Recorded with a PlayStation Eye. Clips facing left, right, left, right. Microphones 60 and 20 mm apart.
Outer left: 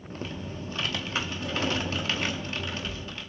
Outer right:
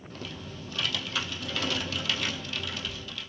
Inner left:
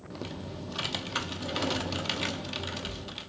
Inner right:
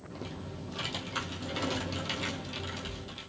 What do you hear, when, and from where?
0.1 s typing on a keyboard: 30° left (ahead or behind), 0.9 m